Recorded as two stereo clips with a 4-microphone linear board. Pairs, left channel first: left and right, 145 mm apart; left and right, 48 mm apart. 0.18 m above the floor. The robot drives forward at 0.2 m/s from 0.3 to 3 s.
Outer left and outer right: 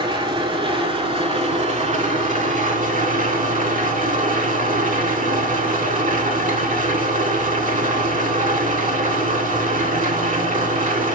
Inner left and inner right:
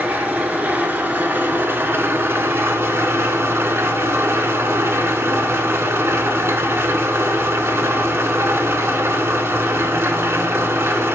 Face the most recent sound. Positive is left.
turn(degrees=-60)  # may be behind; listen again after turning